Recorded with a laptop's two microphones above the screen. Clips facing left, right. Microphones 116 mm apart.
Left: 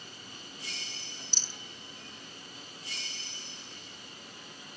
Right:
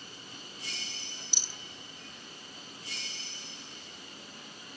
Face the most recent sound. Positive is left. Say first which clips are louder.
# even
turn(degrees=-15)  # may be behind; listen again after turning